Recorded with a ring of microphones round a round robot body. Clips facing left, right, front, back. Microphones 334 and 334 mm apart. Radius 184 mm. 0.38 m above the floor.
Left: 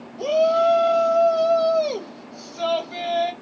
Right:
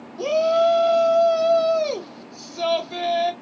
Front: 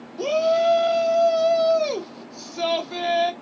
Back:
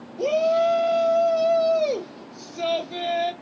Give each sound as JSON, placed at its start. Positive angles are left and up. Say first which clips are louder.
{"t": 0.2, "sound": "a shout", "louder": "even, even", "azimuth_deg": -55, "distance_m": 1.6}